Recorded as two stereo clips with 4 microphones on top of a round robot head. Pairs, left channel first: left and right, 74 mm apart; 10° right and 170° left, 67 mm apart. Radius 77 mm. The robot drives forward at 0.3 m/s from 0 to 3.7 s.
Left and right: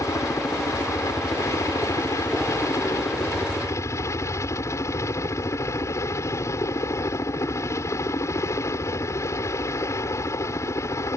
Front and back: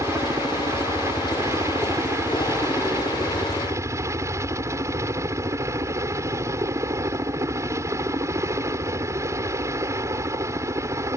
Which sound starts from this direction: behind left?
A helicopter, at 0.0 s.